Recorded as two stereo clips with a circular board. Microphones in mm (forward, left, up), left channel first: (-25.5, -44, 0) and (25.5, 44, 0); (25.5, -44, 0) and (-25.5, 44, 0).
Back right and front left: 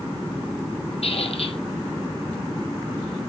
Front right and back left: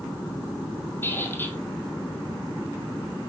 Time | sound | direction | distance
1.0 | a squeak | 130° right | 1.9 m